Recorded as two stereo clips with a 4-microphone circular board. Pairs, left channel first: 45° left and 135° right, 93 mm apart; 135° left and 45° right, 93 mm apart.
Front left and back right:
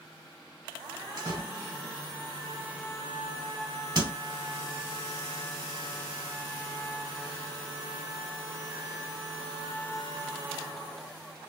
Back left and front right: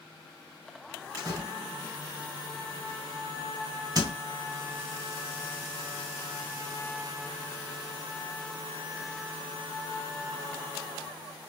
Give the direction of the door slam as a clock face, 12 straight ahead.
3 o'clock.